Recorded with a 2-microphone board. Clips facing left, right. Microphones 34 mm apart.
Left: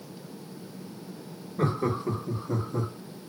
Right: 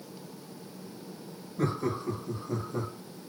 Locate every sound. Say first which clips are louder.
1.6 s laughter: left 3 dB; 40° left (ahead or behind), 1.0 m; by 2.9 s centre (ahead or behind), 1.0 m